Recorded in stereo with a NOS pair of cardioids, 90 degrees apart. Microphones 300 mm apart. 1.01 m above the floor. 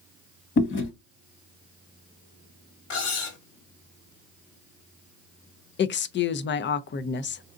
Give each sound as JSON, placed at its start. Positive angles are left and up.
{"t": 0.6, "sound": "chewing", "azimuth_deg": 45, "distance_m": 1.3}
{"t": 2.9, "sound": "cutlery clinking", "azimuth_deg": 70, "distance_m": 1.7}
{"t": 5.8, "sound": "a woman speaking", "azimuth_deg": 40, "distance_m": 0.5}